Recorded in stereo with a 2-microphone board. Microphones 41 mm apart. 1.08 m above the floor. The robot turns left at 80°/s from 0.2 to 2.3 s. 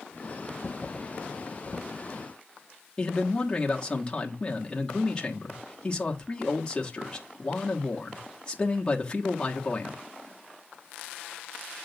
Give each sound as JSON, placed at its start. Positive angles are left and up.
{"t": 3.0, "sound": "a man speaking", "side_deg": 25, "distance_m": 1.2}